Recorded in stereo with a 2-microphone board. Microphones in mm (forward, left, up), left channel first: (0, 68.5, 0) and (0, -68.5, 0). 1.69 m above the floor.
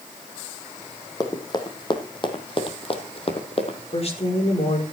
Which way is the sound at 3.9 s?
50° left (ahead or behind).